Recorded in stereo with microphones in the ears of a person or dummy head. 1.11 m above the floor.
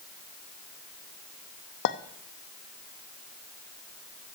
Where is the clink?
55° left (ahead or behind), 0.6 m.